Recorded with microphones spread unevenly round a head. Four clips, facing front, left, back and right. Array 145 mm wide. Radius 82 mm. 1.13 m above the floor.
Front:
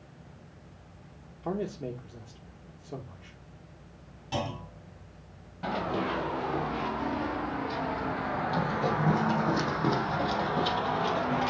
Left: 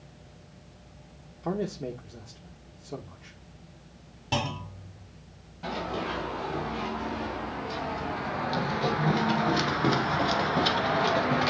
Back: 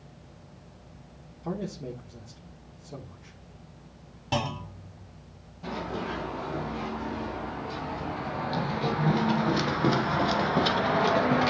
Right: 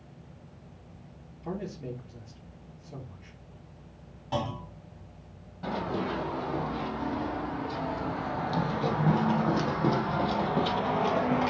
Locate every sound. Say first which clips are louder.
1.4 s a man speaking: left 5 dB, front 1 dB; 60° left, 1.2 m
4.3 s a clunk: left 1 dB, back 3 dB; 120° left, 2.5 m
5.6 s running footsteps: right 1 dB, front 3 dB; 5° left, 2.5 m; by 11.5 s 170° right, 1.3 m